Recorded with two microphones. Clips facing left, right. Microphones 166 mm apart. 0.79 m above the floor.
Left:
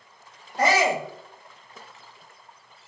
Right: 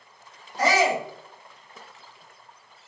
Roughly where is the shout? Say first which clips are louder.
Even; left.